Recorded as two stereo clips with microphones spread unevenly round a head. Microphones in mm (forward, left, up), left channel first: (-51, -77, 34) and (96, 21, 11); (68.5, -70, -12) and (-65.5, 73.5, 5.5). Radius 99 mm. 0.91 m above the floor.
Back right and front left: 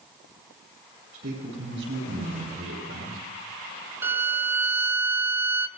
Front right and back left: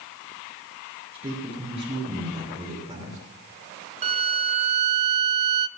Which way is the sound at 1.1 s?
70° left.